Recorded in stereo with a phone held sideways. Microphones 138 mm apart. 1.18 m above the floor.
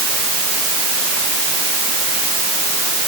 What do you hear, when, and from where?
Only background noise.